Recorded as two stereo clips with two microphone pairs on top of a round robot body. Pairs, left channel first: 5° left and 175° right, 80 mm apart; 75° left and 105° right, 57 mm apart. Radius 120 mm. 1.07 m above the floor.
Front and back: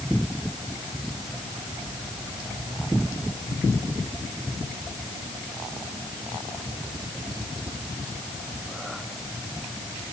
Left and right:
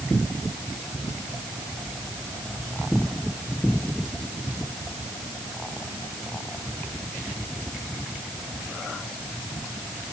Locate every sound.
Only background noise.